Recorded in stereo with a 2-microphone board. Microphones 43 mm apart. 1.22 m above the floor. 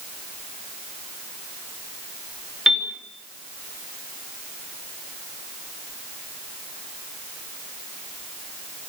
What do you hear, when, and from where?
2.7 s a piano: 10° right (ahead or behind), 3 m